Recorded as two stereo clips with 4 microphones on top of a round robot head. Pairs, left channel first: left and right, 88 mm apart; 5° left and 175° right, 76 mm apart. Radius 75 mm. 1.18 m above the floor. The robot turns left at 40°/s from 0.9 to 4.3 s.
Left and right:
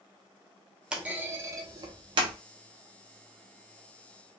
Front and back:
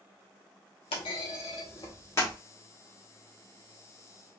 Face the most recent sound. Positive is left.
turn(degrees=-150)